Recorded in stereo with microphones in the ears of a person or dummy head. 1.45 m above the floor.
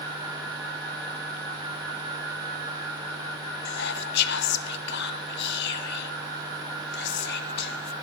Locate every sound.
3.6 s whispering: 65° left (ahead or behind), 0.7 m